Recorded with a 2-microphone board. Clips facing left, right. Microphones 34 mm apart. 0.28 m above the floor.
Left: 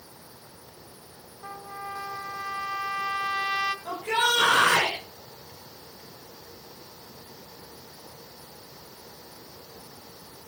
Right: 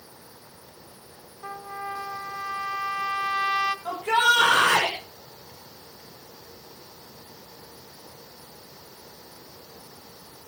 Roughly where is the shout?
Right.